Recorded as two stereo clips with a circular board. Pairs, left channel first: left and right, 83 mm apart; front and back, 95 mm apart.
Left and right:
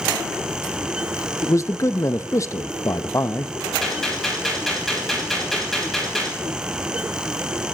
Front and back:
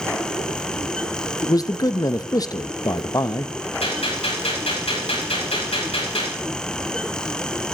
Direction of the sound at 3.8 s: 5° left.